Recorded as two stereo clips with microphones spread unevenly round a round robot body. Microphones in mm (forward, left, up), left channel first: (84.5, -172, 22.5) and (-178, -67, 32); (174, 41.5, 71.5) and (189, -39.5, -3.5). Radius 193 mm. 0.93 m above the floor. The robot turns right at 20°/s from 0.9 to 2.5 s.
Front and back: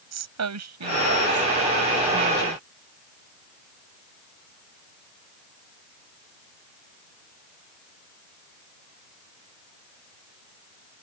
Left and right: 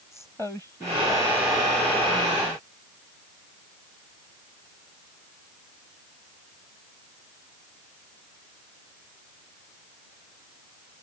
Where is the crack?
I don't hear a crack.